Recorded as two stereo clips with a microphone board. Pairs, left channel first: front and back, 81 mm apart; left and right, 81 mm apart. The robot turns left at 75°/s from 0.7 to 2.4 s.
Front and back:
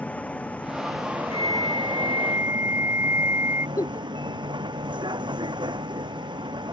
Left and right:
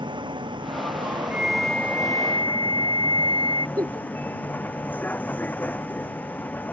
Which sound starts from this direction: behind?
A flute, at 1.3 s.